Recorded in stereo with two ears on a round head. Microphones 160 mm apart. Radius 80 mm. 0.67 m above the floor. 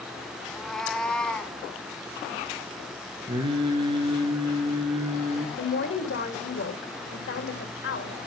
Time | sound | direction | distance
0.5 | a cat meowing | centre (ahead or behind) | 0.9 m
3.3 | singing | 30° right (ahead or behind) | 3 m
5.6 | a woman speaking | 70° left (ahead or behind) | 2 m